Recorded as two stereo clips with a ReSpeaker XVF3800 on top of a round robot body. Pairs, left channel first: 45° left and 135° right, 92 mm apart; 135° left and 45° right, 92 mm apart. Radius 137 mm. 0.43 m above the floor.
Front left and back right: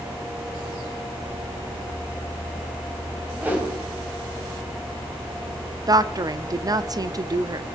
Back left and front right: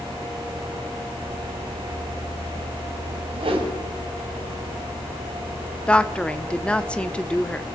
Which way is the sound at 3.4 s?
65° right.